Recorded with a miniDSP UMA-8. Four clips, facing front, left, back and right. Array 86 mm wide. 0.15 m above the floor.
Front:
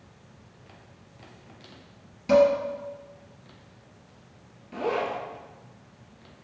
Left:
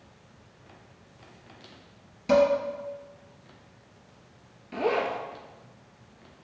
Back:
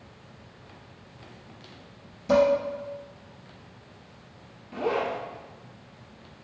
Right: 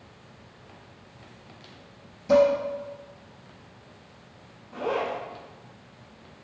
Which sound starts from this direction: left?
A zipper, at 4.7 s.